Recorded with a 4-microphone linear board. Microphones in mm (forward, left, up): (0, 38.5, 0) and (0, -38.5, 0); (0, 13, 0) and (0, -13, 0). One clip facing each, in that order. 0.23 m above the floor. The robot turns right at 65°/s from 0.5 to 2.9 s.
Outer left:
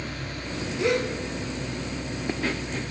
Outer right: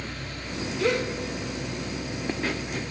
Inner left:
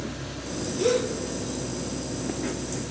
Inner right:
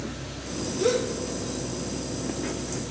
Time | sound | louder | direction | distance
0.8 | a gasp | outer left 1 dB, inner left 1 dB | 15° left (ahead or behind) | 3.5 m